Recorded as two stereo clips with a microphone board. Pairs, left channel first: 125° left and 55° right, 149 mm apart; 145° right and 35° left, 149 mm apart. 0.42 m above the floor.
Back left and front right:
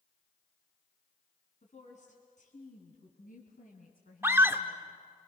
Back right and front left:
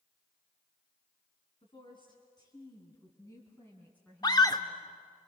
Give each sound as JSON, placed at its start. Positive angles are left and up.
{"t": 1.6, "sound": "a woman speaking", "azimuth_deg": 160, "distance_m": 4.0}
{"t": 4.2, "sound": "a scream", "azimuth_deg": -115, "distance_m": 0.8}